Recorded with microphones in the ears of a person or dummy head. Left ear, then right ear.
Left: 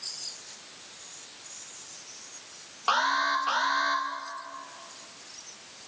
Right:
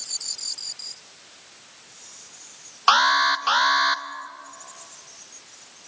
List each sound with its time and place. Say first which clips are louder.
2.9 s an alarm: right 8 dB; 40° right (ahead or behind), 1.5 m